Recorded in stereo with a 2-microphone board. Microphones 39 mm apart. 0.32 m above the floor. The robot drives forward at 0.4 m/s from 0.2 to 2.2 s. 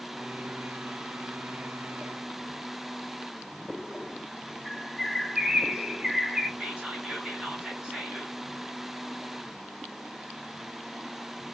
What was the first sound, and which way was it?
A bird, 5° right (ahead or behind).